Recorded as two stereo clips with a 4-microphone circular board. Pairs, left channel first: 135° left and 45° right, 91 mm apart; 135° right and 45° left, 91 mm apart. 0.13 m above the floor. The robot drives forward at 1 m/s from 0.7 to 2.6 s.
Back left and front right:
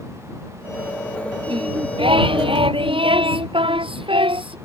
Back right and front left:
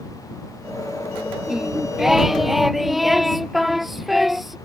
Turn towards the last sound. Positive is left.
turn(degrees=-40)